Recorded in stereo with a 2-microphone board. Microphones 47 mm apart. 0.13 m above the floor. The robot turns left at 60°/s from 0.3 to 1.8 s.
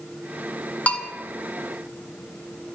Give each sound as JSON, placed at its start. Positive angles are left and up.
{"t": 0.9, "sound": "a bell", "side_deg": 30, "distance_m": 1.3}